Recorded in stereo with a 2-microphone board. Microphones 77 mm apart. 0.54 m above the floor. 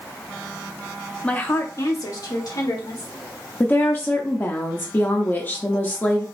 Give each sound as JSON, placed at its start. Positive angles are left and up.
{"t": 1.2, "sound": "a woman speaking", "side_deg": 15, "distance_m": 0.7}
{"t": 3.6, "sound": "a woman speaking", "side_deg": 25, "distance_m": 0.6}